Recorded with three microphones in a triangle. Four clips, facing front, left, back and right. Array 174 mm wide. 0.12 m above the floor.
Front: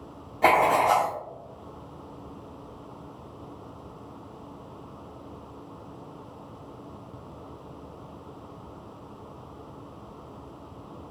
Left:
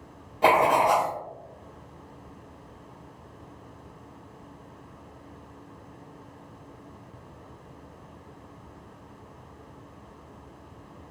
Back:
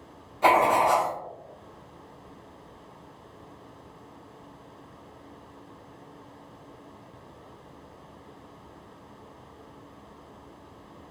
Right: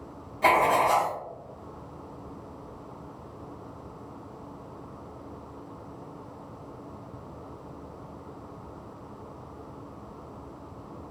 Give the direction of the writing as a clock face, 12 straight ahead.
11 o'clock.